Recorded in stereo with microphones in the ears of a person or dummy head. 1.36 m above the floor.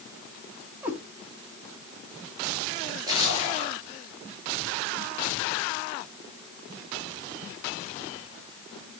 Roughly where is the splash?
Right.